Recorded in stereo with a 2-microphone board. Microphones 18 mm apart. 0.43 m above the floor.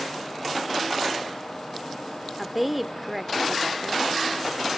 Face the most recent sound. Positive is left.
turn(degrees=-5)  # may be behind; listen again after turning